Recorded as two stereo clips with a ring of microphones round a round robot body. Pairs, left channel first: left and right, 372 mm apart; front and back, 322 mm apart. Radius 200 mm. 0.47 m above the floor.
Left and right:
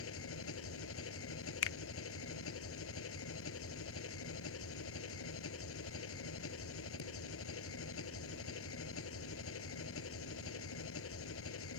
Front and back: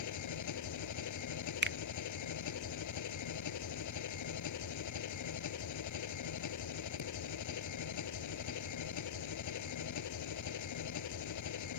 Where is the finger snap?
130° left.